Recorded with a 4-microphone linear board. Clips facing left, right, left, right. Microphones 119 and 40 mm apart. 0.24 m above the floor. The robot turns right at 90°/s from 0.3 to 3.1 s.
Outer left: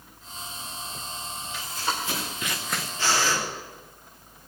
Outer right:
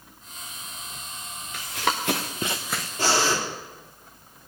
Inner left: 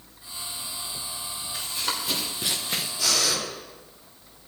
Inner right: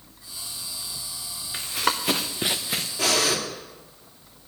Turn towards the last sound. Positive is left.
turn(degrees=-30)  # may be behind; listen again after turning